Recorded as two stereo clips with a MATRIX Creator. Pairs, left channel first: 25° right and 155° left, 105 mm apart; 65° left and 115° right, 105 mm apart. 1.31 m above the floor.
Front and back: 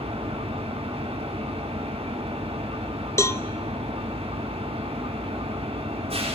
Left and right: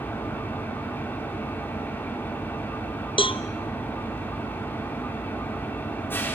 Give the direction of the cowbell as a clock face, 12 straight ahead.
11 o'clock.